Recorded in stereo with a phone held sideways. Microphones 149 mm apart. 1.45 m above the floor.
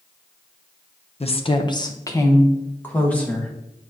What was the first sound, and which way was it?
A woman speaking, 45° left (ahead or behind).